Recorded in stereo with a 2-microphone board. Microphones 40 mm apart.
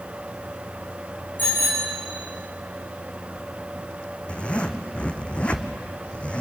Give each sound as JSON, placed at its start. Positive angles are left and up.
{"t": 1.4, "sound": "a bicycle bell", "side_deg": 50, "distance_m": 7.5}
{"t": 4.3, "sound": "a zipper", "side_deg": 30, "distance_m": 1.2}